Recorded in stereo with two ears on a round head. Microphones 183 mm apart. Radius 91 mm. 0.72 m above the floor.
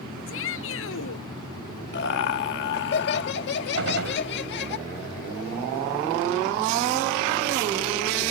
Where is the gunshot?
65° right (ahead or behind).